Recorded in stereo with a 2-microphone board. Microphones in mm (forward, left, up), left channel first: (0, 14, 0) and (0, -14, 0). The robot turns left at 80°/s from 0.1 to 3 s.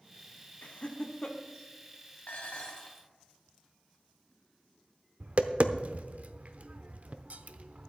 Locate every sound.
0.6 s laughter: 55° left (ahead or behind), 1.2 m; by 1.4 s 15° left (ahead or behind), 1.2 m
2.3 s dishes clattering: 75° left, 2.5 m; by 3.1 s 15° left, 2.5 m
5.2 s tapping: 55° right (ahead or behind), 0.8 m